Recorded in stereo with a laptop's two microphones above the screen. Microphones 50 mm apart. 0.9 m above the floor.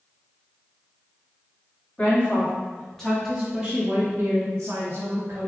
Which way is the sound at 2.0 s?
25° left (ahead or behind).